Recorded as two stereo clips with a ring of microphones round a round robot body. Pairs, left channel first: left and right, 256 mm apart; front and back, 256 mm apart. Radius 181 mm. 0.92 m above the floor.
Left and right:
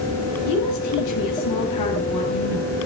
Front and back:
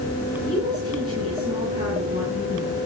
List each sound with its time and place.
0.4 s a woman speaking: 100° left, 8.5 m; by 2.8 s 110° left, 8.5 m